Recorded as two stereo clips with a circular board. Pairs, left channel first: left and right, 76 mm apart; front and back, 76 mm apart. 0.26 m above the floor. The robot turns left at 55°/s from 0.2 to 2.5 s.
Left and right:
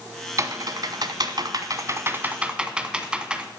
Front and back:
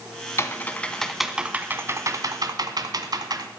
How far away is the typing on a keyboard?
About 1.1 m.